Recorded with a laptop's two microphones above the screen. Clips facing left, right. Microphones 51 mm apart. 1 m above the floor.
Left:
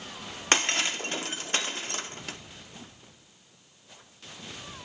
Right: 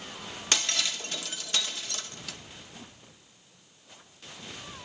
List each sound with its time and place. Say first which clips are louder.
0.5 s breaking glass: left 5 dB; 40° left (ahead or behind), 0.7 m